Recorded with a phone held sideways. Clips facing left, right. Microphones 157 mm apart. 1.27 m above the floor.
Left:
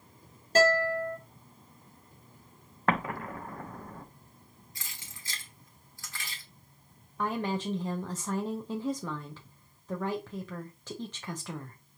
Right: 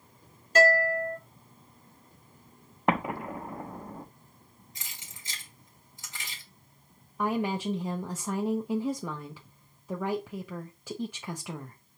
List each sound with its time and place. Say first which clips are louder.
0.6 s a guitar: right 1 dB; 35° left (ahead or behind), 2.5 m
2.9 s an explosion: right 2 dB; 20° right (ahead or behind), 0.5 m
4.8 s keys jangling: left 1 dB; 20° right (ahead or behind), 1.4 m
7.2 s a woman speaking: right 3 dB; 10° right (ahead or behind), 0.5 m